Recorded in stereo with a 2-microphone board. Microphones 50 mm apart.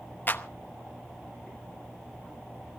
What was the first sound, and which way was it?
A clap, 45° left (ahead or behind).